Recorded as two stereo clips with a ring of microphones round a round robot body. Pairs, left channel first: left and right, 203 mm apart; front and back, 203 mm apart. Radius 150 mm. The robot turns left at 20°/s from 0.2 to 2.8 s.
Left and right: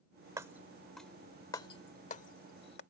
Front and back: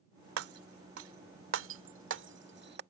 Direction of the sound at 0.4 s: 170° right.